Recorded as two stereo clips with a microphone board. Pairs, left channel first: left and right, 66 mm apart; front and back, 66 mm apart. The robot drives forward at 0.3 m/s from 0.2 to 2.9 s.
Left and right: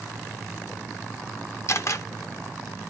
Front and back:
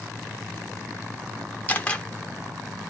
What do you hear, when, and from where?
1.7 s a camera shutter: 60° left, 0.7 m; by 2.0 s 70° left, 0.6 m